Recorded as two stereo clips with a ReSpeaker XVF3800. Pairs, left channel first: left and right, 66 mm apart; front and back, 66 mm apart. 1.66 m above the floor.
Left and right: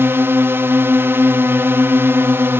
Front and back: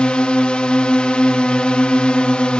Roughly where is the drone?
Ahead right.